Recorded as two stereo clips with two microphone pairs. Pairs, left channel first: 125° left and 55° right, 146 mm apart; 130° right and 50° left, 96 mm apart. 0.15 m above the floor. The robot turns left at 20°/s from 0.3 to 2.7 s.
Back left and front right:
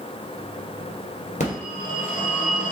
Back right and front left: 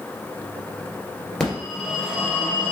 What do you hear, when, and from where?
1.4 s a phone ringing: 150° left, 2 m; by 2.7 s 125° left, 2 m